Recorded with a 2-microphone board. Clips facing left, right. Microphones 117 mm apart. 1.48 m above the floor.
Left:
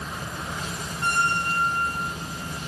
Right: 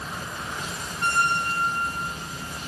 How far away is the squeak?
About 1.3 m.